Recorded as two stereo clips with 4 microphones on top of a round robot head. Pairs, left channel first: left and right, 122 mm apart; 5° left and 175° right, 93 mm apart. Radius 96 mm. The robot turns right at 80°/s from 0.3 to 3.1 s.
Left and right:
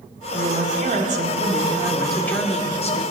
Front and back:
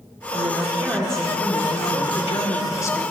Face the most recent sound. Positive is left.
turn(degrees=80)